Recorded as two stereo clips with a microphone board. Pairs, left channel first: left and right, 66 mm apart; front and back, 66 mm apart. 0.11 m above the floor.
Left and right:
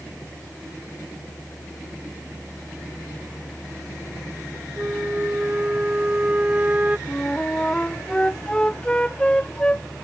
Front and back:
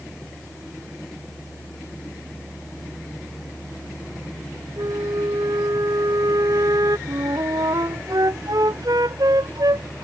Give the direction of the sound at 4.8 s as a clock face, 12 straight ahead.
5 o'clock.